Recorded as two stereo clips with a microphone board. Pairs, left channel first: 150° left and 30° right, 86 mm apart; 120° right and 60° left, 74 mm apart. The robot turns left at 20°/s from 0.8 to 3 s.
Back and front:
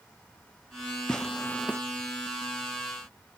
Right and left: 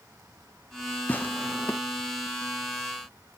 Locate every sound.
1.1 s tearing paper: 140° right, 0.6 m; by 1.8 s 155° right, 0.6 m